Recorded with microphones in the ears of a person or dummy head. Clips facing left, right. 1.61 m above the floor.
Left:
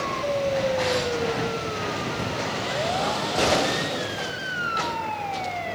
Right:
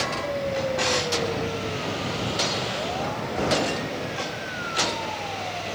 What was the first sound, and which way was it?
A drawer, 45° right (ahead or behind).